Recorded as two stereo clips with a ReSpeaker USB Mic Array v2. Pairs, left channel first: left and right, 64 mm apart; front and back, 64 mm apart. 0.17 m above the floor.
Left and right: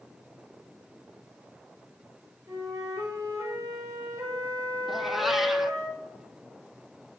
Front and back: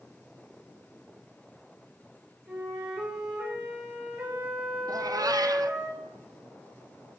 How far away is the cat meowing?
About 0.6 m.